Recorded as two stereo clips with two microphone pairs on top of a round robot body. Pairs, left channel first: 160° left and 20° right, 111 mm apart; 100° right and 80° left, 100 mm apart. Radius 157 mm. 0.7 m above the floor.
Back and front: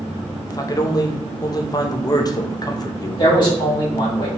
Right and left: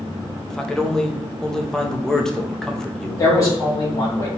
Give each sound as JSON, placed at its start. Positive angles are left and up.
{"t": 0.5, "sound": "a man speaking", "azimuth_deg": -175, "distance_m": 1.1}
{"t": 3.2, "sound": "a man speaking", "azimuth_deg": -155, "distance_m": 2.0}